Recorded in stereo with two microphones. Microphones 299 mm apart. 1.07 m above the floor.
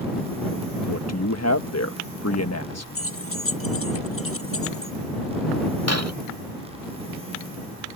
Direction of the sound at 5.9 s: 55° right (ahead or behind).